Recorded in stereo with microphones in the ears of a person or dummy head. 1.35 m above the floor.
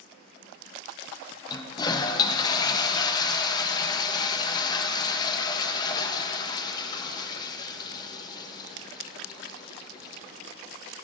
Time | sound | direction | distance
1.5 | a toilet flushing | 20° left (ahead or behind) | 0.9 m